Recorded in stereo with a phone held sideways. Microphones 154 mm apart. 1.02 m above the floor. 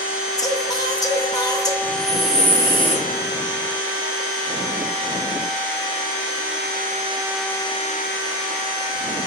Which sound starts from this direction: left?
Singing, at 0.4 s.